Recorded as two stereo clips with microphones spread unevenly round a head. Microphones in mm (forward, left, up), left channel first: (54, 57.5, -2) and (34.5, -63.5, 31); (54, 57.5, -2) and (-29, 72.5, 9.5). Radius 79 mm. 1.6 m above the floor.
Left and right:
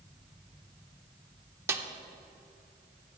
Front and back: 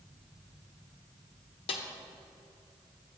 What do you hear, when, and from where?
1.7 s a snare drum: 35° right, 0.6 m